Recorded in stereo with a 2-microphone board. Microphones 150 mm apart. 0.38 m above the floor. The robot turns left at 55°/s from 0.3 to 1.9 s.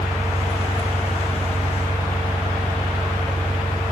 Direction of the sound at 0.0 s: 130° left.